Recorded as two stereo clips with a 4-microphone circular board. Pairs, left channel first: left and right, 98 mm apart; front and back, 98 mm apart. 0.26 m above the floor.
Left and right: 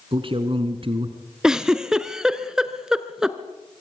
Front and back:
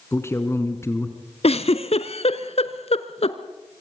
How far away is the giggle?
About 1.4 m.